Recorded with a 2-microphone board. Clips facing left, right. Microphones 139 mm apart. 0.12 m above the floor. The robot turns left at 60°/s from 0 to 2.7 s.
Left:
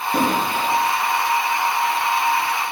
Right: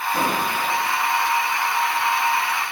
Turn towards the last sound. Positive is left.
turn(degrees=-55)